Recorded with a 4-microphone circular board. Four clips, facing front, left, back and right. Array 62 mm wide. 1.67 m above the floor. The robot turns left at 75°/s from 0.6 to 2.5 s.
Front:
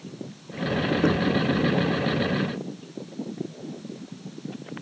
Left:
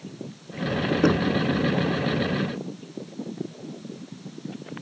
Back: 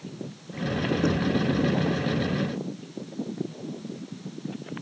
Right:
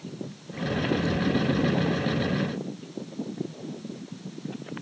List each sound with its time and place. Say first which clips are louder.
1.0 s knocking: left 5 dB, front 3 dB; 70° left; by 1.4 s 45° left